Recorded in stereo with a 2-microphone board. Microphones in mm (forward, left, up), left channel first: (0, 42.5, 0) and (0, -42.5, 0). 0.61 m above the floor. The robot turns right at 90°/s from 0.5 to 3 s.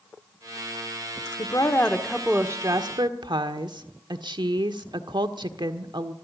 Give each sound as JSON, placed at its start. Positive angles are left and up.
{"t": 1.4, "sound": "a woman speaking", "azimuth_deg": 115, "distance_m": 1.3}